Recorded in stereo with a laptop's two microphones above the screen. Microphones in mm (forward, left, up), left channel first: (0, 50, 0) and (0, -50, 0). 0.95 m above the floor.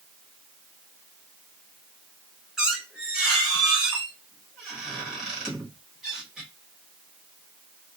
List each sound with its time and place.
2.6 s a squeak: 5° right (ahead or behind), 1.0 m